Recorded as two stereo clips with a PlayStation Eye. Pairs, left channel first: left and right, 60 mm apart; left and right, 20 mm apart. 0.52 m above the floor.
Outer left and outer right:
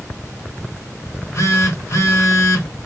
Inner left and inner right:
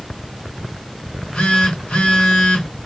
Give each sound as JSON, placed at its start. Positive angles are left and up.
{"t": 1.1, "sound": "a phone buzzing", "side_deg": 55, "distance_m": 1.1}